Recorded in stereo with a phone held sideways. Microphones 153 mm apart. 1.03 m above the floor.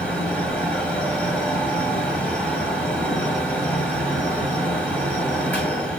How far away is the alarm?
I don't hear an alarm.